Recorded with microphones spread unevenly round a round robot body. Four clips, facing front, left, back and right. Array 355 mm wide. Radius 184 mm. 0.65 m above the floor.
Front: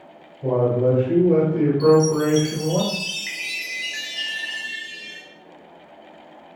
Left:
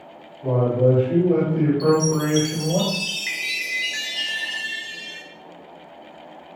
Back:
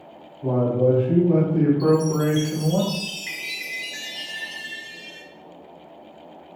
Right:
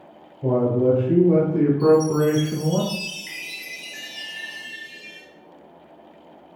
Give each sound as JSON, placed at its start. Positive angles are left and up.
{"t": 0.4, "sound": "a man speaking", "azimuth_deg": -75, "distance_m": 3.0}
{"t": 1.8, "sound": "a chime", "azimuth_deg": 75, "distance_m": 2.5}